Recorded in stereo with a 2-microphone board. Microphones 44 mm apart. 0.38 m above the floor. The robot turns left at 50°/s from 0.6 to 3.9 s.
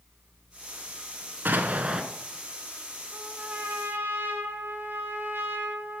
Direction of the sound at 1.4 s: 45° right (ahead or behind).